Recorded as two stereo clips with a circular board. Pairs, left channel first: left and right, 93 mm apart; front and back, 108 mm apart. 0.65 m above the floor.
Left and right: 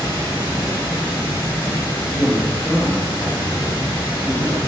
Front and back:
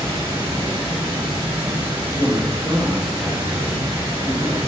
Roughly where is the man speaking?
Right.